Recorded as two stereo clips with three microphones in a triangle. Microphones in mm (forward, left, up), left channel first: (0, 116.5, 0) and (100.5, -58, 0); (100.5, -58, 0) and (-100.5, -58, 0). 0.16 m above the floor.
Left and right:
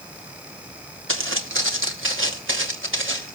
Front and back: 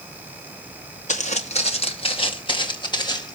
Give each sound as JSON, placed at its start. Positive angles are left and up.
{"t": 1.1, "sound": "footsteps", "azimuth_deg": -55, "distance_m": 2.0}